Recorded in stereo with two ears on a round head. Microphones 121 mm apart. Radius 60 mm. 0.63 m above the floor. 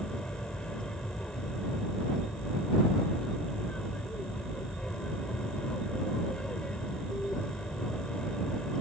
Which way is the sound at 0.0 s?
5° left (ahead or behind).